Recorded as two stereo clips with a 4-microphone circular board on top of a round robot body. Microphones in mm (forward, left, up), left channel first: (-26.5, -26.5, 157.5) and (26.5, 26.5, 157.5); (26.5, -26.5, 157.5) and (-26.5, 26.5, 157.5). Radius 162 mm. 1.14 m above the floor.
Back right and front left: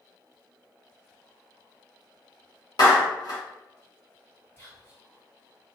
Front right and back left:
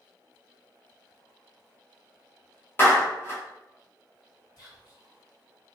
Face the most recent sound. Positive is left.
turn(degrees=-75)